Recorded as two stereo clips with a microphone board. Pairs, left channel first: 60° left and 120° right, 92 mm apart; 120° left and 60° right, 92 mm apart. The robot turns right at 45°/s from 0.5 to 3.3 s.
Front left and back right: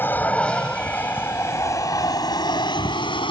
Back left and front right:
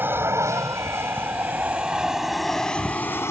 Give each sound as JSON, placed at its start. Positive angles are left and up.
{"t": 0.0, "sound": "an aircraft", "azimuth_deg": 0}